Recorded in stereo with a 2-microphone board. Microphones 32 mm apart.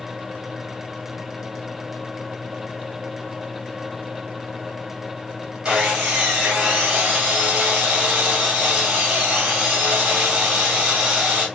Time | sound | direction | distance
5.7 | sawing | 30° right (ahead or behind) | 3 m